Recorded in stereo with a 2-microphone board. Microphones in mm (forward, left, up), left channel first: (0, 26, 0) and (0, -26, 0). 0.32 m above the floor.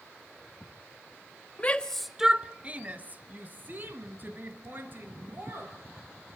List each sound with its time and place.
1.6 s a shout: 30° left (ahead or behind), 1.0 m; by 5.7 s 45° right (ahead or behind), 6 m